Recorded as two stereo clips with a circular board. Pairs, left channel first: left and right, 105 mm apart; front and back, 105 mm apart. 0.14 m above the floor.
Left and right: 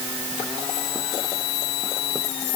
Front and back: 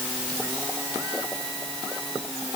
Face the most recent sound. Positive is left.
No sound to turn to.